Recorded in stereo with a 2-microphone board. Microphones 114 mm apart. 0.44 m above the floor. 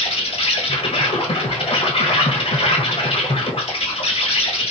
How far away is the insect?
About 1.2 m.